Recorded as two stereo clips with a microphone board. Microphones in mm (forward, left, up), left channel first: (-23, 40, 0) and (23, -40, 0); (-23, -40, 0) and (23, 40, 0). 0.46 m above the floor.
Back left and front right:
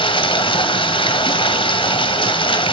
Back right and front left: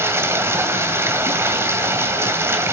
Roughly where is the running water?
Behind left.